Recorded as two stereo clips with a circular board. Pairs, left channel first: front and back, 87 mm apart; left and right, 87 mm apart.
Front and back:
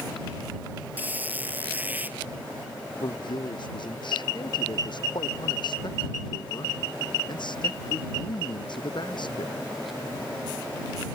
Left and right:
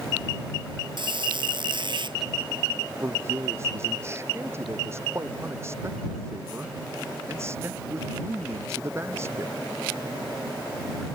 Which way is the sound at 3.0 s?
30° right.